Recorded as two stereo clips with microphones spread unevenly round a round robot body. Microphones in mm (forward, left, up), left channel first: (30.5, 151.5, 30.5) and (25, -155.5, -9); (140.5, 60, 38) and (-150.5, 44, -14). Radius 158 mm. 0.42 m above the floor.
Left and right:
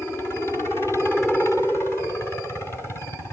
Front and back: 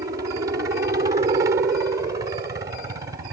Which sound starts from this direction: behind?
A helicopter, at 0.0 s.